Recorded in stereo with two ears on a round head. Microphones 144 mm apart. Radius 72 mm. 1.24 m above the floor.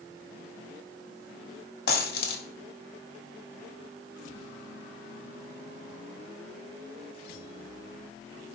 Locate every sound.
1.9 s a dropped coin: 65° left (ahead or behind), 2.5 m